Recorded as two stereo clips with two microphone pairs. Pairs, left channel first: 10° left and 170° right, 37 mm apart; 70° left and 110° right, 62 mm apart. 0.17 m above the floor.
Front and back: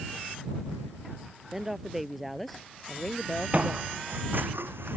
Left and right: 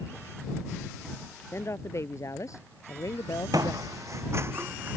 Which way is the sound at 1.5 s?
110° left.